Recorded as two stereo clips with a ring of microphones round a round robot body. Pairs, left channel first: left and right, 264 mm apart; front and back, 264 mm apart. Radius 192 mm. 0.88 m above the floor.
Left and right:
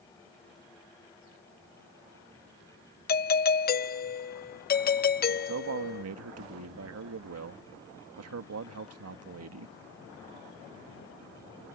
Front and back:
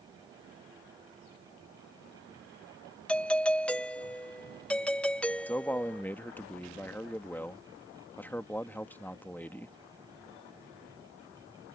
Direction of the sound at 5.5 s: 85° right.